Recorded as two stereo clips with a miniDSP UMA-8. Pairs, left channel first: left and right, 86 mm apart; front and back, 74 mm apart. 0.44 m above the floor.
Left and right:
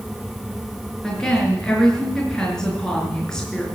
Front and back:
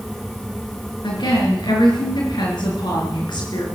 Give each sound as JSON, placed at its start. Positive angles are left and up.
{"t": 1.0, "sound": "a woman speaking", "azimuth_deg": 5, "distance_m": 5.0}